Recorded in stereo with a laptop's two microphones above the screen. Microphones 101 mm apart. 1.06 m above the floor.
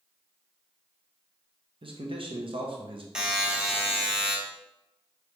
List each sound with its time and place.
1.8 s a man speaking: 55° right (ahead or behind), 0.9 m
3.1 s a buzzer: 5° right (ahead or behind), 0.9 m